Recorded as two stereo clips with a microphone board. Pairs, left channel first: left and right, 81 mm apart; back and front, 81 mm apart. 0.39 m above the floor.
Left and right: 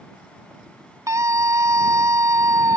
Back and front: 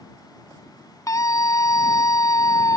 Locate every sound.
1.1 s a scream: 135° right